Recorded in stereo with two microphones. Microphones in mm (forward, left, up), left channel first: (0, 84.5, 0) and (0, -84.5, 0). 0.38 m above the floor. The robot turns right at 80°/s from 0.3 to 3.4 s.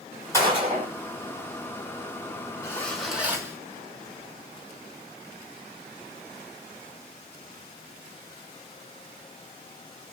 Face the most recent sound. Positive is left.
turn(degrees=-150)